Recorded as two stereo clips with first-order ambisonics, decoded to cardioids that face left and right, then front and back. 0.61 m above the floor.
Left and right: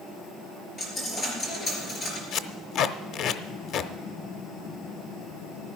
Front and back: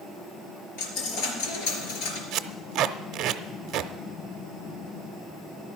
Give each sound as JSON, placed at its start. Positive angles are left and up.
{"t": 0.8, "sound": "a dropped coin", "azimuth_deg": 20, "distance_m": 3.5}
{"t": 2.3, "sound": "tape being pulled", "azimuth_deg": 135, "distance_m": 0.7}